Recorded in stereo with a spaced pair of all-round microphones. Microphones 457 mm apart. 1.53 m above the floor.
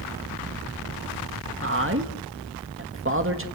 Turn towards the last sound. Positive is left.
turn(degrees=-25)  # may be behind; listen again after turning